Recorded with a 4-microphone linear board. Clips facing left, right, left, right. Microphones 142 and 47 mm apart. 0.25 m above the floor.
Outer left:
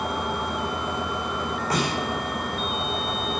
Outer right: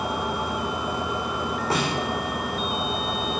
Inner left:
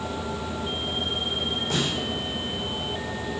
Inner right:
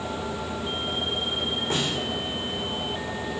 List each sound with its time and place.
1.7 s a snare drum: 25° right (ahead or behind), 4.5 m